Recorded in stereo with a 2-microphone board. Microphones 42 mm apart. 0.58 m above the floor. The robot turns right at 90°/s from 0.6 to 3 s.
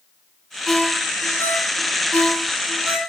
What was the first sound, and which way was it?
A ringtone, 5° left (ahead or behind).